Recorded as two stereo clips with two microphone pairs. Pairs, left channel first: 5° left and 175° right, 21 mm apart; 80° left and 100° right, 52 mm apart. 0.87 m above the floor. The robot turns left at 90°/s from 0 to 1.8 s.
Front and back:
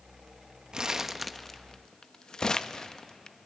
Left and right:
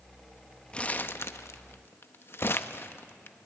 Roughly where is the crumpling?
Behind left.